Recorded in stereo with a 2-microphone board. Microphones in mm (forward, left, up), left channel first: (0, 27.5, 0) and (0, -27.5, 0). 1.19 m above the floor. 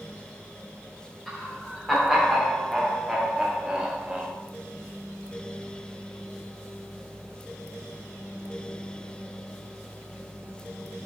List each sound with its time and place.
1.3 s laughter: 5° left (ahead or behind), 3.5 m; by 4.3 s 20° right (ahead or behind), 1.2 m